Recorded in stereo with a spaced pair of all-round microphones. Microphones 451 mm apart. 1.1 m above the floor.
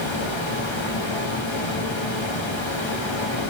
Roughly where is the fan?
Left.